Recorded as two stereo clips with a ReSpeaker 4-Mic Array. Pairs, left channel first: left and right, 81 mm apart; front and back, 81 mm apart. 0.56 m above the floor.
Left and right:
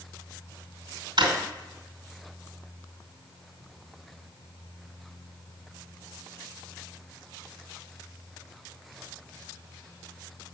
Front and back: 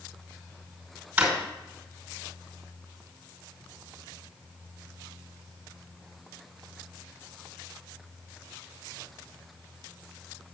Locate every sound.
1.2 s a drawer: 105° right, 2.5 m